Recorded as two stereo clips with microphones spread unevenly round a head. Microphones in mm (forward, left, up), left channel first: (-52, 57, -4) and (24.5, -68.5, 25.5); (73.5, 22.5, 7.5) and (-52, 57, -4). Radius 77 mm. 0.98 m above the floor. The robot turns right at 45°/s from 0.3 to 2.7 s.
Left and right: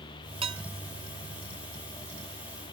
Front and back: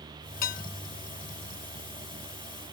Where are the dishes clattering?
Straight ahead; by 0.6 s 10° left.